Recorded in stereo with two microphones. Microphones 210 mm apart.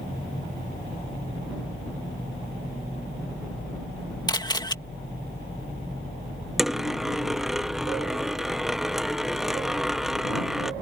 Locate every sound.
4.3 s a camera shutter: 20° left (ahead or behind)
6.6 s a dropped coin: centre (ahead or behind)